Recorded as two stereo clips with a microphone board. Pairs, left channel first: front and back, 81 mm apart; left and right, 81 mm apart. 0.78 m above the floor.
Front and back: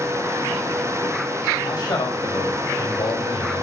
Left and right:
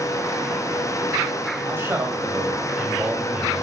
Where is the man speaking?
30° right, 4.5 m; by 3.6 s 15° right, 2.5 m.